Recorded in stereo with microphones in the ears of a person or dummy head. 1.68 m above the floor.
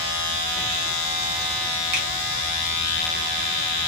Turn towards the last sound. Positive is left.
turn(degrees=-45)  # may be behind; listen again after turning